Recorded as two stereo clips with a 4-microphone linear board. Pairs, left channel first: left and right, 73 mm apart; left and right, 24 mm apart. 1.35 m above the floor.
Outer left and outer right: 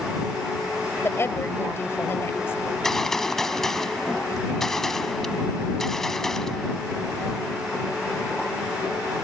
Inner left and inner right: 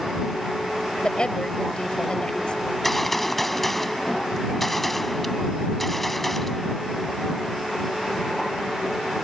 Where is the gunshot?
5° left (ahead or behind).